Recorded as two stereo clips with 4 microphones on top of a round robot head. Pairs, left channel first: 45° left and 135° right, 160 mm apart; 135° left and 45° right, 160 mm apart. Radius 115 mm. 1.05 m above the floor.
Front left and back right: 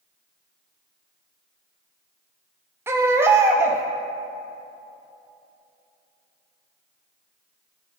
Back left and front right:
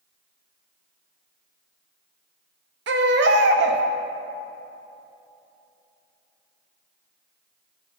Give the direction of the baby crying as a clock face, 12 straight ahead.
2 o'clock.